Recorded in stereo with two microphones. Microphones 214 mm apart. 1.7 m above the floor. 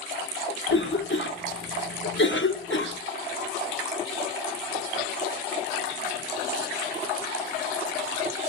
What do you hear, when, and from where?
0.7 s a cough: 65° left (ahead or behind), 1.3 m